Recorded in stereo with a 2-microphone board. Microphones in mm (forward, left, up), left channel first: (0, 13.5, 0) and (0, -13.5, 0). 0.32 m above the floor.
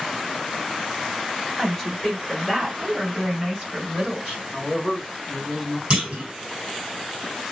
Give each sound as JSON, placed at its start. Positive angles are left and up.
{"t": 1.6, "sound": "a woman speaking", "side_deg": -5, "distance_m": 1.6}
{"t": 4.5, "sound": "a man speaking", "side_deg": -20, "distance_m": 0.9}
{"t": 5.9, "sound": "a clunk", "side_deg": -45, "distance_m": 1.9}